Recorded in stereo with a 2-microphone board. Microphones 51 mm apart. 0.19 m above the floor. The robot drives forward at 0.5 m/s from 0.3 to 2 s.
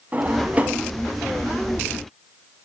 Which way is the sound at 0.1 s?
30° right (ahead or behind).